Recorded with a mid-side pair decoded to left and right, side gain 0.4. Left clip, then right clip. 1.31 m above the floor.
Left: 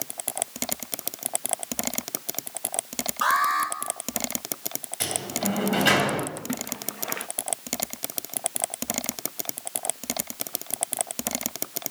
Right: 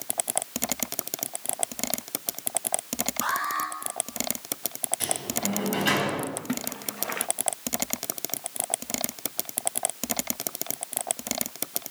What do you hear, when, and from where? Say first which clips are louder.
3.2 s an alarm: left 7 dB; 60° left, 8 m
5.0 s a sliding door: left 3 dB; 50° left, 9.5 m
6.4 s a splash: even; 10° right, 1.4 m